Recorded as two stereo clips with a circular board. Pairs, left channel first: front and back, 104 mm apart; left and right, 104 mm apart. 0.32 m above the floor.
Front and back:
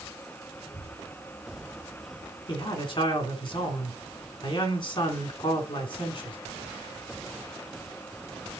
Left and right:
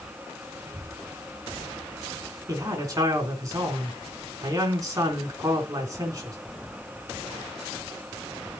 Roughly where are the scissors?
No scissors in this recording.